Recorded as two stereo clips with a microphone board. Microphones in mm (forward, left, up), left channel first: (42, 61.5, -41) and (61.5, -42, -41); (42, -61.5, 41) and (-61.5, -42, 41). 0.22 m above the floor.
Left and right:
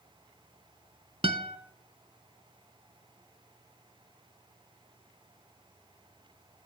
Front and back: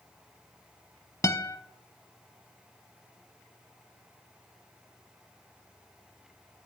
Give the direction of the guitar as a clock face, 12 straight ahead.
2 o'clock.